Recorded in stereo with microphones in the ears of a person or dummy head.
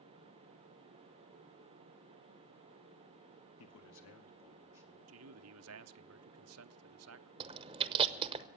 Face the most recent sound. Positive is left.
turn(degrees=-25)  # may be behind; listen again after turning